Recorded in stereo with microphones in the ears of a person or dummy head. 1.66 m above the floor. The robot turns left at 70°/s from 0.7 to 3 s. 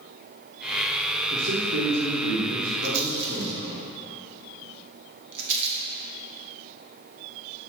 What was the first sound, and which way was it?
A man speaking, 35° right.